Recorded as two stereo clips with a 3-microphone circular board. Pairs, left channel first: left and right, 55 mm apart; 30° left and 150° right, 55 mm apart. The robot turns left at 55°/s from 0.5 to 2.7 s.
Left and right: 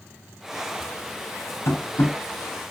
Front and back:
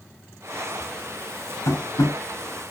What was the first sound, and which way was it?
Tapping, 60° left.